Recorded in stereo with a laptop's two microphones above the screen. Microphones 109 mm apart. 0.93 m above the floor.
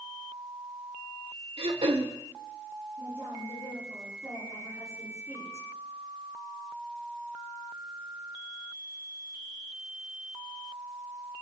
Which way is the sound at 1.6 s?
60° right (ahead or behind).